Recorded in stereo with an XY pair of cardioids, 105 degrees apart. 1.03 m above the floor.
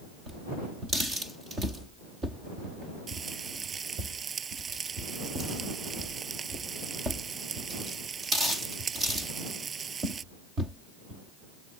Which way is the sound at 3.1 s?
40° right.